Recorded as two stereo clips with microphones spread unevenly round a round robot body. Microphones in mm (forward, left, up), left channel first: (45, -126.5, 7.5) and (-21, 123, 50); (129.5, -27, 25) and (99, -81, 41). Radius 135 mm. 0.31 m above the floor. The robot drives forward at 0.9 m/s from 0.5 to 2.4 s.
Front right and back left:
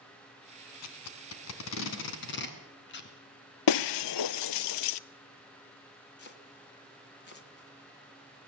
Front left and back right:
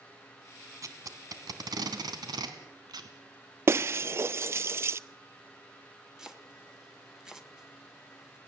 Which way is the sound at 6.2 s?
35° right.